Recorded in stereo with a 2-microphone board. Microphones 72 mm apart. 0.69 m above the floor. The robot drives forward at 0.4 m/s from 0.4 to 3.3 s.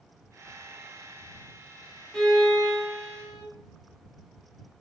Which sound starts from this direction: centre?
A violin, at 2.1 s.